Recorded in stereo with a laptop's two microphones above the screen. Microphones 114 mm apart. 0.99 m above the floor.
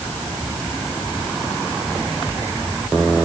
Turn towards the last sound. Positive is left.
No sound to turn to.